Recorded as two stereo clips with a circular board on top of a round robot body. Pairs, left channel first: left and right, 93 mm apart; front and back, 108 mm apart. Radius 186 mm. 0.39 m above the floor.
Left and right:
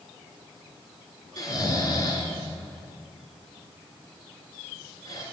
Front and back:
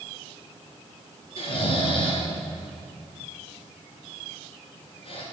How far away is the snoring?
About 1.9 m.